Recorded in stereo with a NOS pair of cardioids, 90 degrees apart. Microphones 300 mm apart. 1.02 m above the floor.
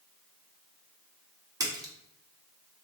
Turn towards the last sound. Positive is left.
turn(degrees=-10)